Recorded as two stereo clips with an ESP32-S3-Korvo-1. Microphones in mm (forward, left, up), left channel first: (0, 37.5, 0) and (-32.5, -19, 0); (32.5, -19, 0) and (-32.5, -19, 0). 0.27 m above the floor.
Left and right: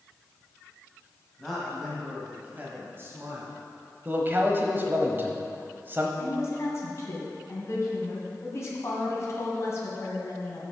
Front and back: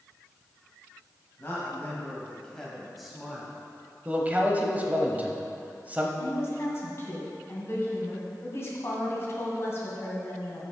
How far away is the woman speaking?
About 2 m.